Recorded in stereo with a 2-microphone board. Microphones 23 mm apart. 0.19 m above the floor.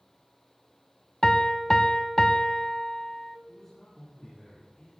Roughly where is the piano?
Centre.